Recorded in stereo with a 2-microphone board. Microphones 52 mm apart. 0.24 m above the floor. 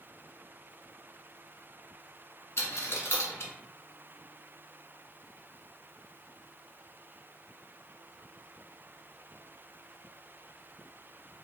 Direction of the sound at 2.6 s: 60° left (ahead or behind).